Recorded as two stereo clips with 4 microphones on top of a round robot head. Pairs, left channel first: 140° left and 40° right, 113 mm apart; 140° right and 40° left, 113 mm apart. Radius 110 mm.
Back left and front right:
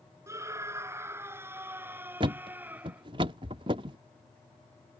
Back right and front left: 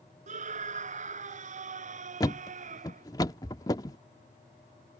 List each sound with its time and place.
0.3 s a scream: 30° left; by 3.0 s 40° left
2.2 s a thud: 85° right